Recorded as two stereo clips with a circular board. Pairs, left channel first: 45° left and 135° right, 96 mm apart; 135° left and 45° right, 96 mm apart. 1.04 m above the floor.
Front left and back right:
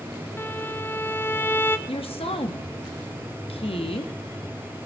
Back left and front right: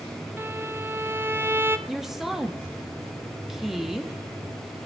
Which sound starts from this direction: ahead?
A violin, at 0.4 s.